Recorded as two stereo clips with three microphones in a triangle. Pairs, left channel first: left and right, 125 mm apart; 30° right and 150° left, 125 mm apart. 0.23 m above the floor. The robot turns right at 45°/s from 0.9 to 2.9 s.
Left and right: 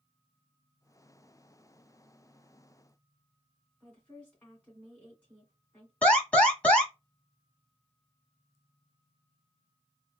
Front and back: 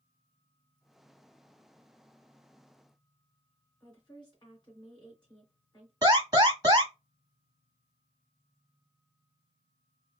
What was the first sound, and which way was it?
A woman speaking, 10° left.